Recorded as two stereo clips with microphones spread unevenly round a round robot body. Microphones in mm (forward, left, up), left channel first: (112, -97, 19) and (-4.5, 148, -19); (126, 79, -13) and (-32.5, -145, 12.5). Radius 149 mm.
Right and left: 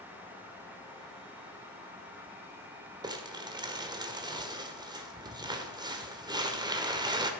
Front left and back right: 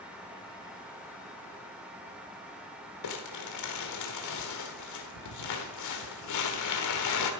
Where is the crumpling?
40° left, 1.6 m.